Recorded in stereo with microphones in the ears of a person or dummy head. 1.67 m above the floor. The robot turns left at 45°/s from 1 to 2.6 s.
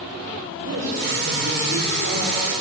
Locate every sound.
0.6 s a man speaking: 60° right, 5.5 m; by 2.5 s 130° right, 5.5 m